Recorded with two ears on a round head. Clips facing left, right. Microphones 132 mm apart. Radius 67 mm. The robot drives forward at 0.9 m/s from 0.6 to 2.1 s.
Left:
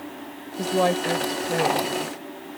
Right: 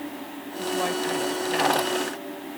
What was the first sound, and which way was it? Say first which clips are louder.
A woman speaking: left 5 dB; 60° left (ahead or behind).